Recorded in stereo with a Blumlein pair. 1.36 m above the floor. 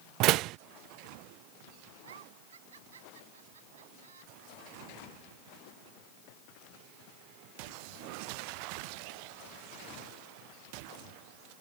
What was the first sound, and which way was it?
A door slam, 40° right.